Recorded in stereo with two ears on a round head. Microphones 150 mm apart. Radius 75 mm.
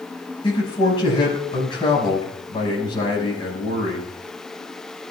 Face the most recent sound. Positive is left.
turn(degrees=30)  # may be behind; listen again after turning